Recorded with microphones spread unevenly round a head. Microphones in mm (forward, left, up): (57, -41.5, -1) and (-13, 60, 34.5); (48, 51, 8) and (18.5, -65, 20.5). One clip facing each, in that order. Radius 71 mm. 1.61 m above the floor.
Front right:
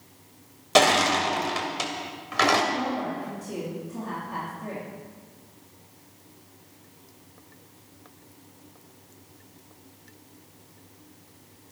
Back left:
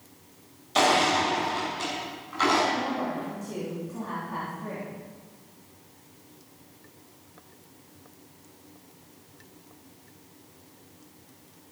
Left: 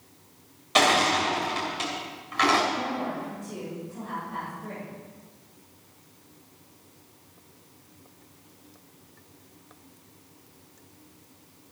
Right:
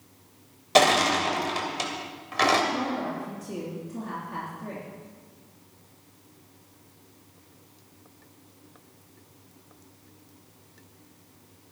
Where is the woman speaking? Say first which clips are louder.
Even, right 1 dB; 135° right, 3.5 m.